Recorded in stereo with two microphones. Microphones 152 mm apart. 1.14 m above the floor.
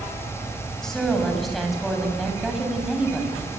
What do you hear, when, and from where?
0.8 s a woman speaking: 5° left (ahead or behind), 7.5 m; by 3.4 s 5° right (ahead or behind), 8 m